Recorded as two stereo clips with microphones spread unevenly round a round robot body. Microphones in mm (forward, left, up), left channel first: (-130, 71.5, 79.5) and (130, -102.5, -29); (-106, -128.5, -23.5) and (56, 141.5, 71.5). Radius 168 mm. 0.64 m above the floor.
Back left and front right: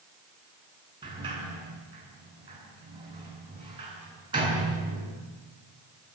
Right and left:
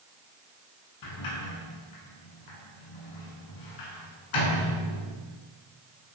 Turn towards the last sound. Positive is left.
turn(degrees=-105)